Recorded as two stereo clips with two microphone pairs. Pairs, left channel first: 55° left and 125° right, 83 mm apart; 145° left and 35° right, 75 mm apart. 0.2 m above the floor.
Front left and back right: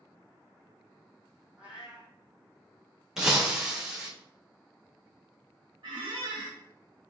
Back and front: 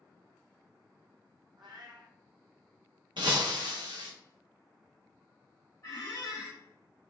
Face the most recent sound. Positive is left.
turn(degrees=-150)